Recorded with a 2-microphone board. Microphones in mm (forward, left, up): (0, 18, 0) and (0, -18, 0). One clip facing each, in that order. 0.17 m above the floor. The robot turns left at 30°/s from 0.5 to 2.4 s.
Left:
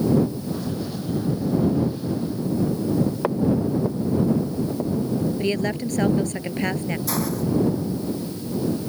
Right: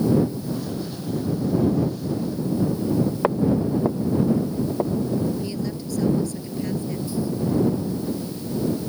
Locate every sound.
3.2 s footsteps: 20° right (ahead or behind); by 5.3 s 40° right (ahead or behind)
5.4 s a woman speaking: 55° left (ahead or behind)
7.1 s a hiss: 85° left